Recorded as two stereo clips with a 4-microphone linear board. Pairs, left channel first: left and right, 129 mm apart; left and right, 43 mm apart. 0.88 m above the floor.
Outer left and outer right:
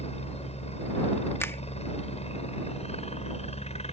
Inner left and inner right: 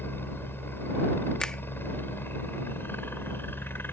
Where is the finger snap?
20° left (ahead or behind).